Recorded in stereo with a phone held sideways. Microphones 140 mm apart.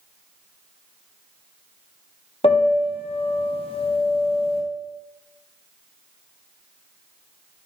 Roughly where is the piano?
Left.